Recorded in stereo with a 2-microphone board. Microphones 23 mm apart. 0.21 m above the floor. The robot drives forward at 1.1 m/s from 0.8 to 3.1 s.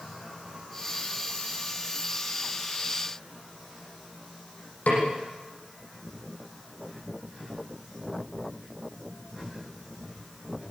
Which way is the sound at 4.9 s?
75° left (ahead or behind).